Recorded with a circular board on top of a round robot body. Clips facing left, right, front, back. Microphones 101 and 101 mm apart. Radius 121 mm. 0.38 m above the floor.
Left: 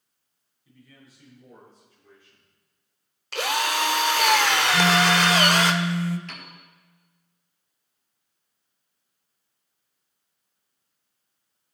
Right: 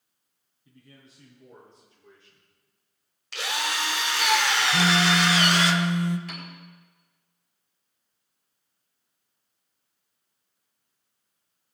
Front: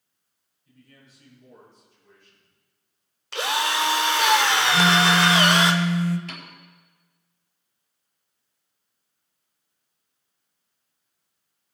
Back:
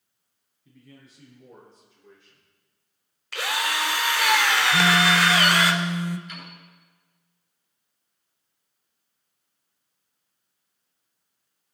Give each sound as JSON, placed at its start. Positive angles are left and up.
{"t": 0.7, "sound": "a man speaking", "azimuth_deg": -155, "distance_m": 6.5}
{"t": 3.3, "sound": "a drill", "azimuth_deg": 60, "distance_m": 1.3}
{"t": 4.7, "sound": "a phone buzzing", "azimuth_deg": -130, "distance_m": 0.8}
{"t": 6.3, "sound": "a piano", "azimuth_deg": -10, "distance_m": 4.5}